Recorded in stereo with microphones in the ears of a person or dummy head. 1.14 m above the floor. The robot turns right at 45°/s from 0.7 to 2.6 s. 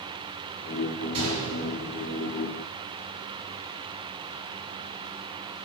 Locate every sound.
1.1 s a gunshot: 35° right (ahead or behind), 3.5 m; by 2.2 s 15° left (ahead or behind), 3.5 m